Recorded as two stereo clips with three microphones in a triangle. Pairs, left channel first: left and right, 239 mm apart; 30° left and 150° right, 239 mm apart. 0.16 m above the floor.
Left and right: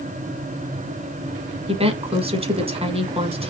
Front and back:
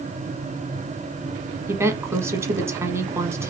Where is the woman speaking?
85° right, 1.0 m.